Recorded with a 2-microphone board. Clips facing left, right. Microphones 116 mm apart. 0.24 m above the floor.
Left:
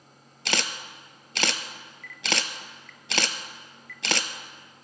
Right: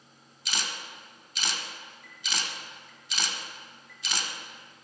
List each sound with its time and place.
0.5 s a camera shutter: 80° left, 0.9 m